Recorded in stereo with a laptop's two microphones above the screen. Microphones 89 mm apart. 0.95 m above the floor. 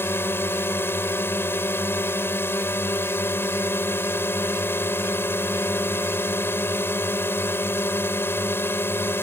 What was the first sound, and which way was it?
A drone, 25° left (ahead or behind).